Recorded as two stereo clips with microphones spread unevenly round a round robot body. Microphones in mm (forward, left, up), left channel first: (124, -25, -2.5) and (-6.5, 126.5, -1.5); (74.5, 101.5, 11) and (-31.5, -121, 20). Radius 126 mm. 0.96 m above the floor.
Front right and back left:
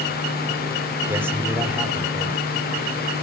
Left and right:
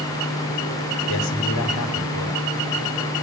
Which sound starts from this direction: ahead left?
A man speaking, at 1.1 s.